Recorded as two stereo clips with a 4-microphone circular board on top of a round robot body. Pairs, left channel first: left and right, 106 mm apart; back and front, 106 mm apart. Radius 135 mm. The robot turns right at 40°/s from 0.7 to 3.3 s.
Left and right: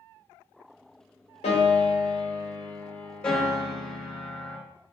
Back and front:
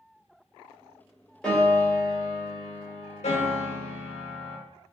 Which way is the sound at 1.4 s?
100° left.